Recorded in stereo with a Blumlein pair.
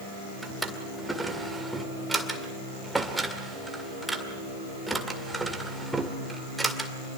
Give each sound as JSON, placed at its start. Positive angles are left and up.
{"t": 0.4, "sound": "a drawer", "azimuth_deg": -5, "distance_m": 2.0}